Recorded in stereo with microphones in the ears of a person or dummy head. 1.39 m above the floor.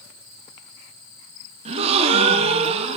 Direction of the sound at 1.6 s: 40° right (ahead or behind).